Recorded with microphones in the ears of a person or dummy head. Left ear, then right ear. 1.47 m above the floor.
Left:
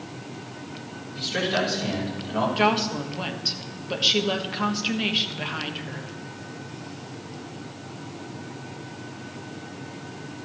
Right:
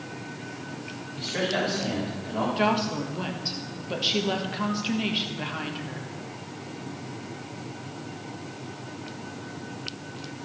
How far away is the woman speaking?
About 1.4 m.